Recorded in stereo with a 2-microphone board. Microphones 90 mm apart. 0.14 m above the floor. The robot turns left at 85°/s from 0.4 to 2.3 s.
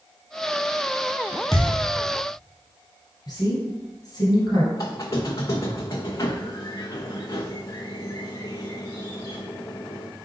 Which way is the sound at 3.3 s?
45° left (ahead or behind).